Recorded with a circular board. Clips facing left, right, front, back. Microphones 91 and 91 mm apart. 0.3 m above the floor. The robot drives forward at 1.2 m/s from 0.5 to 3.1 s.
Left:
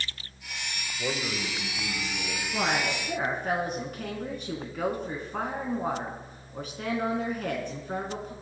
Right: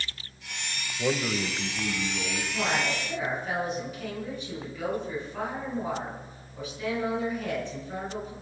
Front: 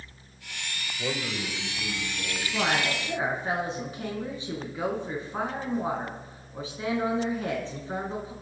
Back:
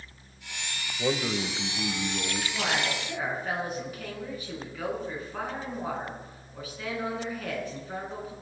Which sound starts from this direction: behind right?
A man speaking, at 1.0 s.